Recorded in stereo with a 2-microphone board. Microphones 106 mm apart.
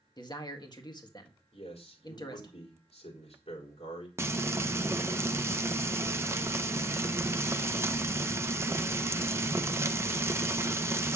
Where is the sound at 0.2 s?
40° left (ahead or behind), 1.8 m.